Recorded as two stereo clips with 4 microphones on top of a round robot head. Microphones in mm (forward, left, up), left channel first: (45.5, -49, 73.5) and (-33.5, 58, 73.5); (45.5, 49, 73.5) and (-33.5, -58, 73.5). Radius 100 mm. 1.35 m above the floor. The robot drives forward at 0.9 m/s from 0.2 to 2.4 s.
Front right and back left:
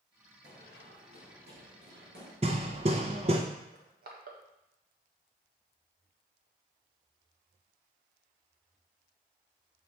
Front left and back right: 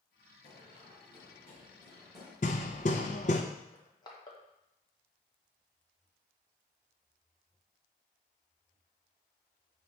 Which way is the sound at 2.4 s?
85° left.